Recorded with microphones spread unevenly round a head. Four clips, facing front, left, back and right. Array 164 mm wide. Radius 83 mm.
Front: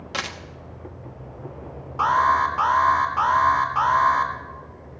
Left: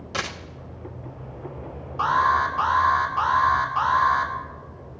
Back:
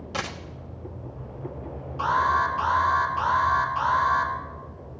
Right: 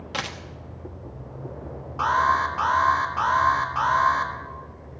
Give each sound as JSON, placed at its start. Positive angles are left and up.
{"t": 0.1, "sound": "a dropped coin", "azimuth_deg": -95, "distance_m": 1.1}
{"t": 2.0, "sound": "an alarm", "azimuth_deg": -30, "distance_m": 2.5}